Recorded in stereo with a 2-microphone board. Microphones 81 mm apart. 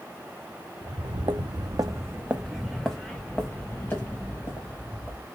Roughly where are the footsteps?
Right.